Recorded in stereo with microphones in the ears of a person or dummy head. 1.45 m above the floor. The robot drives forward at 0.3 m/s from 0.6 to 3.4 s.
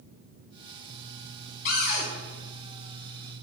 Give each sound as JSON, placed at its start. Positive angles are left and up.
{"t": 1.6, "sound": "a cupboard door", "side_deg": 50, "distance_m": 0.9}